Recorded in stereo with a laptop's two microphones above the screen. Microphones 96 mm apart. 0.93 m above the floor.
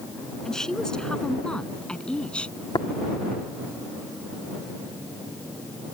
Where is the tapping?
65° left (ahead or behind).